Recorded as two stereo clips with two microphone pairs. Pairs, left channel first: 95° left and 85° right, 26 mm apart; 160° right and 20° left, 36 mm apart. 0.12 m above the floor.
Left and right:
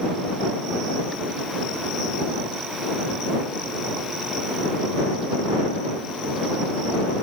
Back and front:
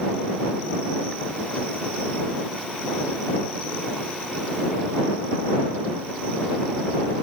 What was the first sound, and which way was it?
Only background noise.